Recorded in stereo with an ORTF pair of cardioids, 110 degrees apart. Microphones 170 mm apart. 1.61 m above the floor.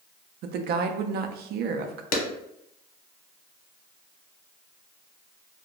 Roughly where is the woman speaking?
Ahead right.